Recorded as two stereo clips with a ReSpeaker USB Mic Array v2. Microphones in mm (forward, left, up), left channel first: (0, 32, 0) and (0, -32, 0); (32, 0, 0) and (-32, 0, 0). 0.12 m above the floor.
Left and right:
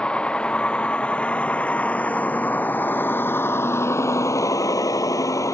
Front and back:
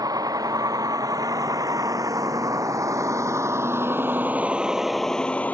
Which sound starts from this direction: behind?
A vehicle, at 0.0 s.